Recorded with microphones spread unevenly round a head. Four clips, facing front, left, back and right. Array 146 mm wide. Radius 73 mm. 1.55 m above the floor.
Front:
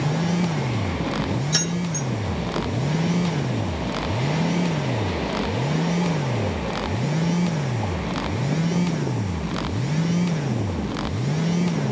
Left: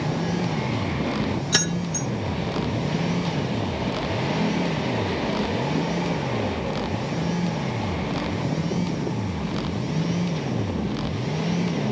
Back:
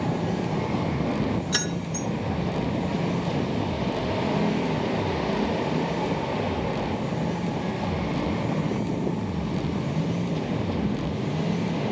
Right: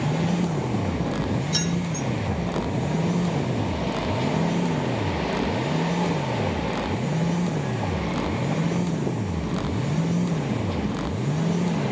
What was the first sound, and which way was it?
Keys jangling, 85° left.